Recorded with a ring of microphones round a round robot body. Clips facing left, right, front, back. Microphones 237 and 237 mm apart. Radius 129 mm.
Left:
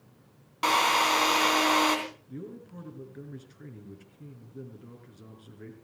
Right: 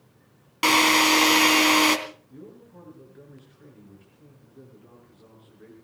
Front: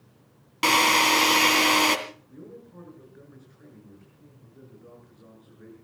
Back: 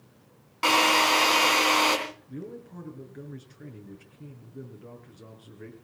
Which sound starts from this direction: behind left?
A man speaking, at 2.3 s.